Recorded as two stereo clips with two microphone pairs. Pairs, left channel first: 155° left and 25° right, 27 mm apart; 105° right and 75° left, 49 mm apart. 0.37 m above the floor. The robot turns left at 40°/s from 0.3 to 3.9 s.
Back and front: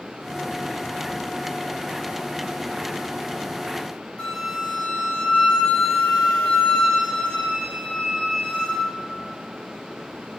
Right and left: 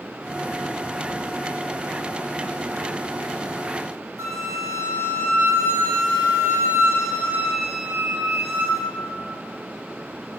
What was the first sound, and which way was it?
A flute, 95° left.